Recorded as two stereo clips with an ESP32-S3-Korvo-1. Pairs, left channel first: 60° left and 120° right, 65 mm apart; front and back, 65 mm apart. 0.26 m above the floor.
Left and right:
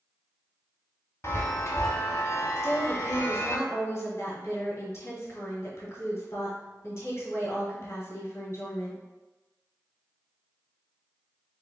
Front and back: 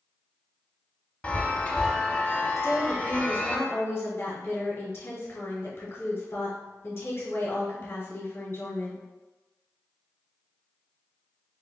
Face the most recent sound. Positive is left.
turn(degrees=30)